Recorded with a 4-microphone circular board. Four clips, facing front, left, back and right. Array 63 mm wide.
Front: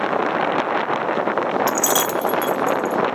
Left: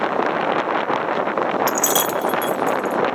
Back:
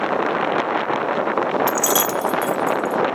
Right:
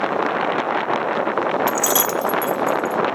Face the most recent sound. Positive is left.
turn(degrees=65)